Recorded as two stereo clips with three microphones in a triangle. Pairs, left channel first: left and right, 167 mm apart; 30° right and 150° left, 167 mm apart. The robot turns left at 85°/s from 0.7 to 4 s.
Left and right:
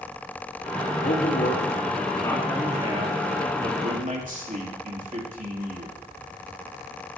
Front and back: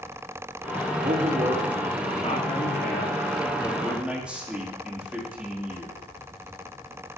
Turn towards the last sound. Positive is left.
turn(degrees=-125)